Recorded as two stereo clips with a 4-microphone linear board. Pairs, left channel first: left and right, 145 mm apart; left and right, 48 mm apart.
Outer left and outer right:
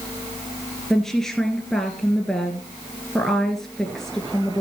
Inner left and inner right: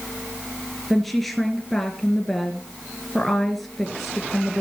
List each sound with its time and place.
0.9 s a woman speaking: 5° left (ahead or behind), 1.8 m